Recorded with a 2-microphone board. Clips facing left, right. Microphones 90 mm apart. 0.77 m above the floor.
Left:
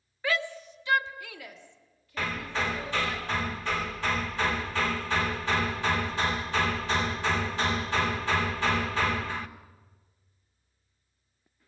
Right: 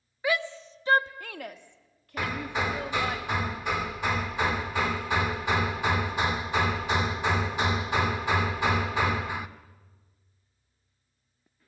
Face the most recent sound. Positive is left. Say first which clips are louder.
# right 1 dB
turn(degrees=-15)  # may be behind; listen again after turning